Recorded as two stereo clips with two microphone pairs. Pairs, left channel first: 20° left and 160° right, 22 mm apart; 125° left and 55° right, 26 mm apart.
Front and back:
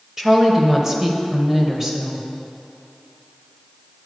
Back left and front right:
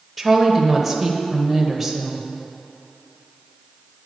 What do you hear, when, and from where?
0.2 s a woman speaking: 125° right, 0.9 m